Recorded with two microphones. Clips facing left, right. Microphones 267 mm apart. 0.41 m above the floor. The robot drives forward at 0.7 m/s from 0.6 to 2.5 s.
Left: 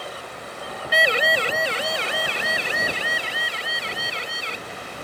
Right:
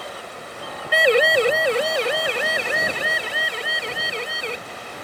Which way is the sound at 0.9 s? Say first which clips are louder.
Right 8 dB; 50° right (ahead or behind).